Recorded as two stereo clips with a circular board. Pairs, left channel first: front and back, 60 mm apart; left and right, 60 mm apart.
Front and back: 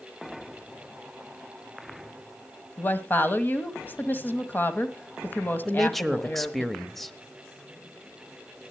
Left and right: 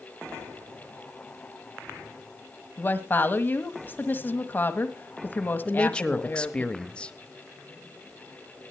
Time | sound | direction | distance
2.8 | a woman speaking | 45° left | 1.4 m
5.7 | a man speaking | 80° left | 1.0 m